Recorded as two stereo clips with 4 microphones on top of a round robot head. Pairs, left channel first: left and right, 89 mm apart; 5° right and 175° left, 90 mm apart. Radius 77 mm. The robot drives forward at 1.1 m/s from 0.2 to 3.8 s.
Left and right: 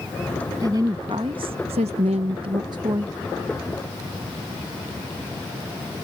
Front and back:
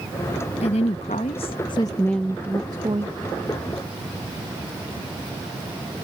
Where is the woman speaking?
25° right; by 3.1 s 140° right.